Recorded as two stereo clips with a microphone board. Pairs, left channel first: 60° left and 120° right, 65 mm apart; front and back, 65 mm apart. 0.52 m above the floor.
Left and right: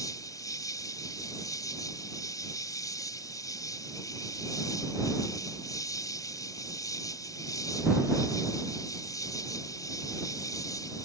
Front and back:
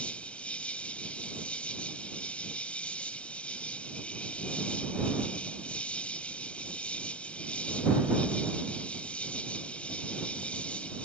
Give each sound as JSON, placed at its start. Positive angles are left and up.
{"t": 0.0, "sound": "an insect", "azimuth_deg": 70}